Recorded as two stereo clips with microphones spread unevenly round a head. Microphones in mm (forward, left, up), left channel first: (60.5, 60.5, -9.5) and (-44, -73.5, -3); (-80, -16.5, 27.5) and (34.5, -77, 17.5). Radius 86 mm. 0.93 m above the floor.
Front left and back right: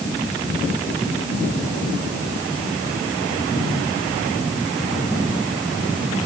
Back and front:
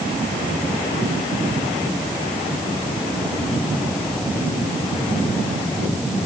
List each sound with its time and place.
Only background noise.